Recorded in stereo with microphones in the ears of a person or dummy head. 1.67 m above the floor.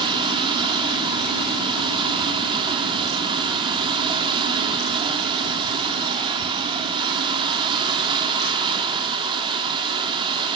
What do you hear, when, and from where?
0.0 s running water: 25° right (ahead or behind), 2 m